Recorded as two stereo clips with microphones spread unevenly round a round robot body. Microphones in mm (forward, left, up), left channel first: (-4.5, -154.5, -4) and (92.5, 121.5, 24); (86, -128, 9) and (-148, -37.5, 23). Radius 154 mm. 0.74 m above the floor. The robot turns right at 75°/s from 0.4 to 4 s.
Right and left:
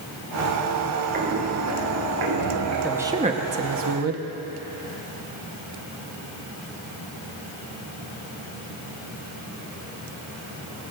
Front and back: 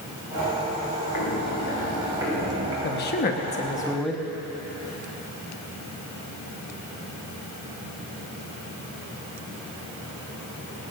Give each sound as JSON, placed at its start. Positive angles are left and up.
{"t": 1.1, "sound": "footsteps", "azimuth_deg": 10, "distance_m": 4.0}
{"t": 2.8, "sound": "a man speaking", "azimuth_deg": -25, "distance_m": 1.2}